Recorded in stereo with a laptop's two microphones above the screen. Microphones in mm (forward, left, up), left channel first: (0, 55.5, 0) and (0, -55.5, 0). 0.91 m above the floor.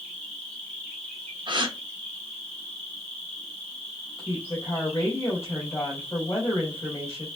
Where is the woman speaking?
25° left (ahead or behind), 3 m.